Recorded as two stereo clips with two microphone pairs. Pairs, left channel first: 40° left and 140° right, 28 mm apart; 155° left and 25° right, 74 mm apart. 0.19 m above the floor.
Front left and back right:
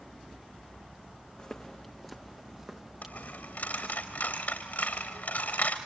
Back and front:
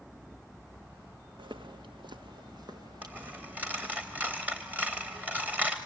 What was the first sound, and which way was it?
Footsteps, 15° right.